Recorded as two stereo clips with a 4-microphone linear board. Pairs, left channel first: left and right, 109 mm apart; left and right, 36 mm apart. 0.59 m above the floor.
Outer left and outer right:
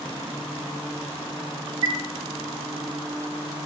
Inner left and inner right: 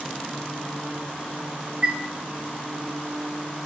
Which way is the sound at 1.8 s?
40° right (ahead or behind).